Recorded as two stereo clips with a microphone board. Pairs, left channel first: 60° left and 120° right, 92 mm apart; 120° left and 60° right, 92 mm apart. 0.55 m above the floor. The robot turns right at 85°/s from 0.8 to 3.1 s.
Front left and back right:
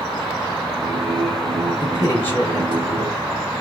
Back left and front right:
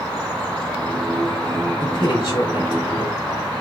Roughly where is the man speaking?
Left.